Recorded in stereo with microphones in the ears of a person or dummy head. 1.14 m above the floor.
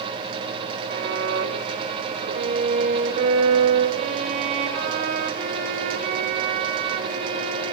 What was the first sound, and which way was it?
A violin, 55° right (ahead or behind).